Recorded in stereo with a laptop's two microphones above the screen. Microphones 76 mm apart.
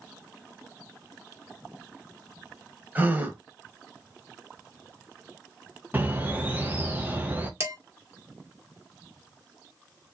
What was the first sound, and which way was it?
A gasp, 20° right (ahead or behind).